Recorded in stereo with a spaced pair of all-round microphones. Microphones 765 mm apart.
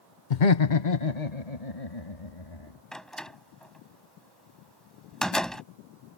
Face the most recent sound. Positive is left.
turn(degrees=0)  # may be behind; listen again after turning